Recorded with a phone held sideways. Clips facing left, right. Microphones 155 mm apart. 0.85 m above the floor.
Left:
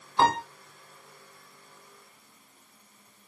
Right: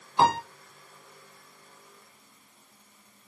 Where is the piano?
5° right (ahead or behind), 1.2 m.